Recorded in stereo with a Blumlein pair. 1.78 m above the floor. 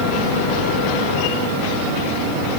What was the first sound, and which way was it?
Only background noise.